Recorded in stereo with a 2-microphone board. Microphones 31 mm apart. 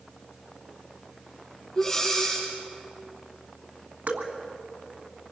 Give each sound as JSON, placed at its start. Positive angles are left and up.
{"t": 1.8, "sound": "breathing", "side_deg": 5, "distance_m": 8.5}
{"t": 4.1, "sound": "dripping", "side_deg": -75, "distance_m": 1.8}